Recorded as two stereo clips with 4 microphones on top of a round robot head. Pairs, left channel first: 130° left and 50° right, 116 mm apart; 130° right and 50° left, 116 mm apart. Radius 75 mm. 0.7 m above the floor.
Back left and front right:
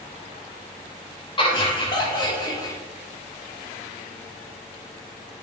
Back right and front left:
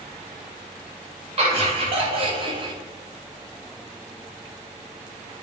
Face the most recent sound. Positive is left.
turn(degrees=80)